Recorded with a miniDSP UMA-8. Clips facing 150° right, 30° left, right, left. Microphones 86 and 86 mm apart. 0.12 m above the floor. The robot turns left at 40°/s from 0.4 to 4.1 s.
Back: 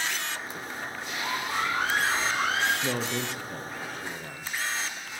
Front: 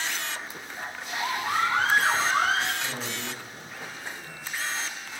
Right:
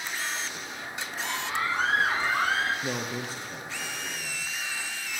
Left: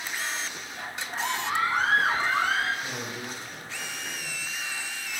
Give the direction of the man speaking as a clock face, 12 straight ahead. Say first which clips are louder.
Back 4 dB, right 3 dB; 4 o'clock.